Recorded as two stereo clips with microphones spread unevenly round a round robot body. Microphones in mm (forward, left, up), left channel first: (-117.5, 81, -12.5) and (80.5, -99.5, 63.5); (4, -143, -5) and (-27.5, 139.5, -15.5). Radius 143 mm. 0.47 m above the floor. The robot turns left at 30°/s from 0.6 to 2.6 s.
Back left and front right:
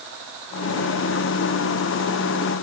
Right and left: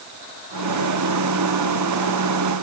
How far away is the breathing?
No breathing in this recording.